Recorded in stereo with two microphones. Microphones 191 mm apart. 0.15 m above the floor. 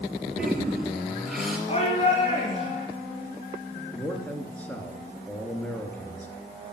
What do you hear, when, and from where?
0.4 s a toilet flushing: centre (ahead or behind), 3 m
1.7 s a shout: 35° left (ahead or behind), 2 m
3.9 s a man speaking: 10° left (ahead or behind), 2.5 m